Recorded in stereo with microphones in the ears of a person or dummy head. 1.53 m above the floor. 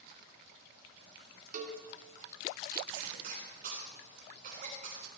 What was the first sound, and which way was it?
A cowbell, 45° right (ahead or behind).